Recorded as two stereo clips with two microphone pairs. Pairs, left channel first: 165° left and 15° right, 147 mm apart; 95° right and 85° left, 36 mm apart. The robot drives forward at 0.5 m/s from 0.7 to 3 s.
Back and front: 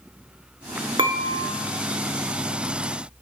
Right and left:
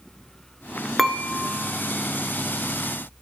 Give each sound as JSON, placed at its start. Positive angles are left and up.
{"t": 1.0, "sound": "dishes clattering", "azimuth_deg": 0, "distance_m": 1.2}